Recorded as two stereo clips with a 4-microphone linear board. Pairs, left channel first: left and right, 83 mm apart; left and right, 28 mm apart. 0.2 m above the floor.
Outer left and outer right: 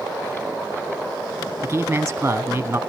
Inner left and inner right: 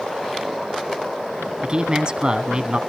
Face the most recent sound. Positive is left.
turn(degrees=-25)  # may be behind; listen again after turning